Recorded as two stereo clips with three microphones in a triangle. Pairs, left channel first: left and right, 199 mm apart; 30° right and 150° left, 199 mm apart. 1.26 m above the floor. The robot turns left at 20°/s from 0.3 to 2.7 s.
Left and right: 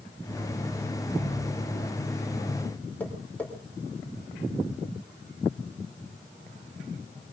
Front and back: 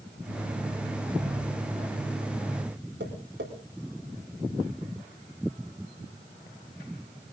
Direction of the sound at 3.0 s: 170° left.